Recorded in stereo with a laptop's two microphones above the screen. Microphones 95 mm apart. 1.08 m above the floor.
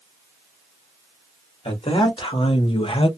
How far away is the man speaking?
About 1.4 m.